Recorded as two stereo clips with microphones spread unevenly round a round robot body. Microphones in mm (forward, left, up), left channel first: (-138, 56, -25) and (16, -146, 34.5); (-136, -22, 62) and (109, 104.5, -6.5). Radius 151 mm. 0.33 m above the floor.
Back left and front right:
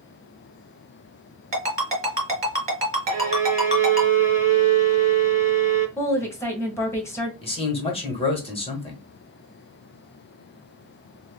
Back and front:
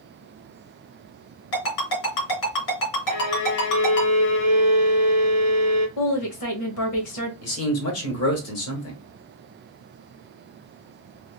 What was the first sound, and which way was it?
A ringtone, 120° right.